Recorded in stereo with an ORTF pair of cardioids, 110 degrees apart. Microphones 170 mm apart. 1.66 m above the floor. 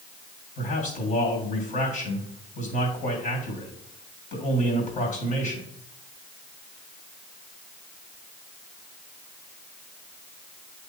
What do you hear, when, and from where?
0.6 s a man speaking: 50° left, 2.5 m